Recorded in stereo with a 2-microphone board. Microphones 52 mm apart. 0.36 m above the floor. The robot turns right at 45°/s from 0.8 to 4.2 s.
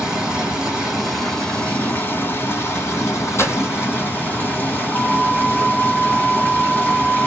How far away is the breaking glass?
About 1.0 m.